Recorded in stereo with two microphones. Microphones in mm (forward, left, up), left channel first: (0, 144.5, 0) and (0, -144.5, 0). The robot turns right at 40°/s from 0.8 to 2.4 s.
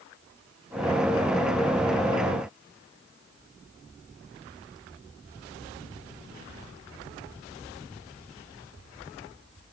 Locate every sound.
Only background noise.